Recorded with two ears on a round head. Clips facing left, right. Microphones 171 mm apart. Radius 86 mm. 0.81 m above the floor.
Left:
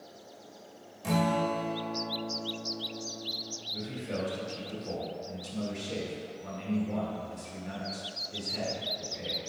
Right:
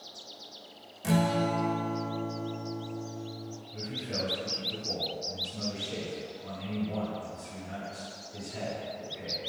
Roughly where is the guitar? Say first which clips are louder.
Right 1 dB; centre.